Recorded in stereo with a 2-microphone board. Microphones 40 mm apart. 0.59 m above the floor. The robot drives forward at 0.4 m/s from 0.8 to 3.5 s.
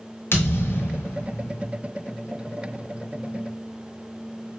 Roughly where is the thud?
Left.